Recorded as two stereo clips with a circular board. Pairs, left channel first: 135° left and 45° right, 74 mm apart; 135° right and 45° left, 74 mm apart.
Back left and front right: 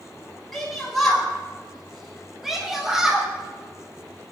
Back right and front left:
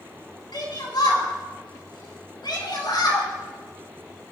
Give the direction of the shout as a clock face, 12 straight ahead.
5 o'clock.